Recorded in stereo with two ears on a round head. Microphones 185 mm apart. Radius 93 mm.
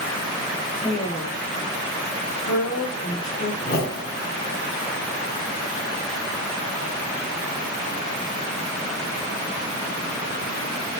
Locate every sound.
0.8 s a woman speaking: 40° left (ahead or behind), 3.5 m; by 3.5 s 55° left (ahead or behind), 3.5 m
3.6 s a whoosh: 50° left (ahead or behind), 3.5 m